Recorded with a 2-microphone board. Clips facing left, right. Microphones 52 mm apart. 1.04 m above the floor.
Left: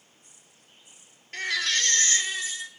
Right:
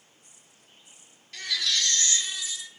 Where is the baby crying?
40° left (ahead or behind), 0.7 m.